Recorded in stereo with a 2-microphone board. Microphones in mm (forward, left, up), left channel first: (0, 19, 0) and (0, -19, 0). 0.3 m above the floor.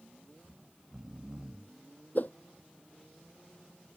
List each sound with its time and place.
0.4 s snoring: 20° right (ahead or behind)
2.1 s a whoosh: 50° left (ahead or behind)